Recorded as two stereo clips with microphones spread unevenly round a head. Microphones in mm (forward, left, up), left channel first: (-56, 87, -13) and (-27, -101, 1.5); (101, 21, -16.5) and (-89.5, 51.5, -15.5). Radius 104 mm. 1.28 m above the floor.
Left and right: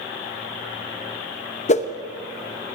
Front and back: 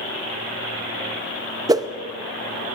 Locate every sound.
1.7 s a whoosh: 115° left, 0.6 m